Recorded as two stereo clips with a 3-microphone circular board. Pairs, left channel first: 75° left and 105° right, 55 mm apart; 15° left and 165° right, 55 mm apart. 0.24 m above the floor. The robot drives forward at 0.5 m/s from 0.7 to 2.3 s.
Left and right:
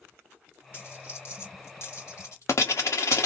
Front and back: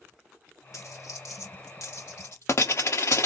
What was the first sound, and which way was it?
A dropped coin, 30° left.